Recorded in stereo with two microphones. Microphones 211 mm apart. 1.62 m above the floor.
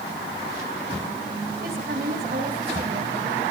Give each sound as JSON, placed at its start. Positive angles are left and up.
{"t": 1.6, "sound": "a woman speaking", "side_deg": -50, "distance_m": 4.0}